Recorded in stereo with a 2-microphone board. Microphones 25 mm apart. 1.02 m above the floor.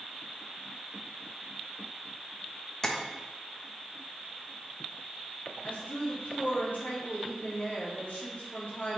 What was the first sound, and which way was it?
Tapping, 20° left (ahead or behind).